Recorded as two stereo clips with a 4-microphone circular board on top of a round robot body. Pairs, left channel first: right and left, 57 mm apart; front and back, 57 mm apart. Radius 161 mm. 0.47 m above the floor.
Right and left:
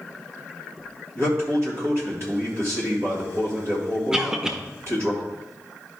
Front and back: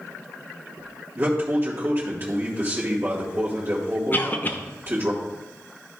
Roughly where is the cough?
Ahead.